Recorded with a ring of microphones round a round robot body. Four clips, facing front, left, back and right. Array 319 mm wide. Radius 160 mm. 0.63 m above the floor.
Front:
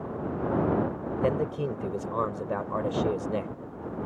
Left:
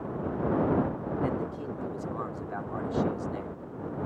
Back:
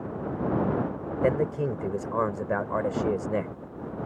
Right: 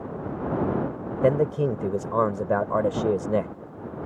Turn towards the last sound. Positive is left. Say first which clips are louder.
# right 15 dB, back 3 dB
turn(degrees=-105)